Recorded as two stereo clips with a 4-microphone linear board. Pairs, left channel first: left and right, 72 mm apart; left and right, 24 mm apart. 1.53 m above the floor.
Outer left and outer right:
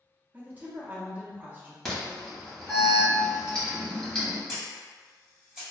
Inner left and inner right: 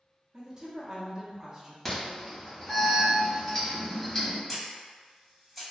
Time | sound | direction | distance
0.3 | a woman speaking | 20° right (ahead or behind) | 0.9 m
1.9 | an alarm | 5° left (ahead or behind) | 1.4 m
4.5 | a camera shutter | 10° right (ahead or behind) | 1.9 m